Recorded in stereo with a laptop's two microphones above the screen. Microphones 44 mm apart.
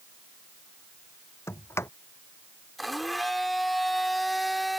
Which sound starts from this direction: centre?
A blender, at 2.8 s.